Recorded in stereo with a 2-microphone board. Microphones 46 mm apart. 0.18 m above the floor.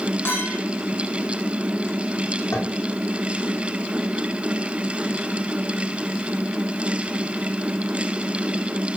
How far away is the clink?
About 6 m.